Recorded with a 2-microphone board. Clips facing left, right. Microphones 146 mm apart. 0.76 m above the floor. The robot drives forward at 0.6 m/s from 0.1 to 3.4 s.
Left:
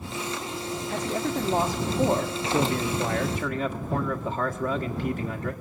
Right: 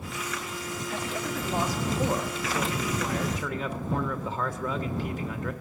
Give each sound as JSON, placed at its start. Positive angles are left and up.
{"t": 0.9, "sound": "a man speaking", "side_deg": 40, "distance_m": 1.6}